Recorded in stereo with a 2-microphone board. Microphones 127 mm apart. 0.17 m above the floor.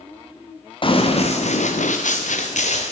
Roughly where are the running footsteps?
Left.